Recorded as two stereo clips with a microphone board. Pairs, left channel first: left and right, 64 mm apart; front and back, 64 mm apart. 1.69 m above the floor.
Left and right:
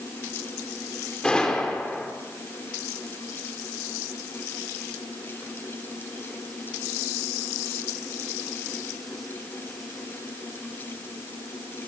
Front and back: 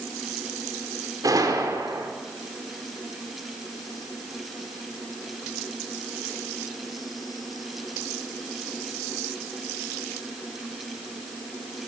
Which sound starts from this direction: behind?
A gunshot, at 1.2 s.